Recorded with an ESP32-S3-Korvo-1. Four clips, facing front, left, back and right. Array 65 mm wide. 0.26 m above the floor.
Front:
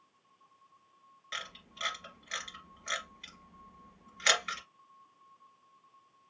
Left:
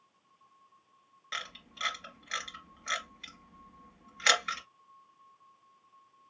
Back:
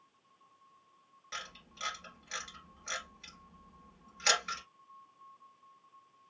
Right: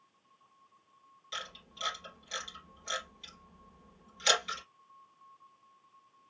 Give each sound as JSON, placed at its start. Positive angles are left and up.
{"t": 1.3, "sound": "a camera shutter", "azimuth_deg": 75, "distance_m": 2.5}